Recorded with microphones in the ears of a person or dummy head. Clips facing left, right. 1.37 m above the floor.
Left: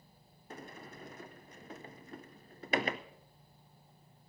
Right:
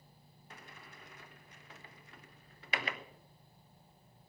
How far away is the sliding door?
About 0.6 m.